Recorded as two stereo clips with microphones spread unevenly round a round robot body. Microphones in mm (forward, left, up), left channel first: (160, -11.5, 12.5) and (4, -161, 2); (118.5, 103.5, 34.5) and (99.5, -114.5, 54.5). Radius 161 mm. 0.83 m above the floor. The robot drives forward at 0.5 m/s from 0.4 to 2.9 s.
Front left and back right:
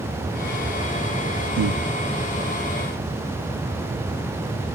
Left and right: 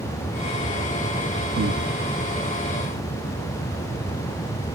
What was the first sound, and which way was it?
Breathing, 140° right.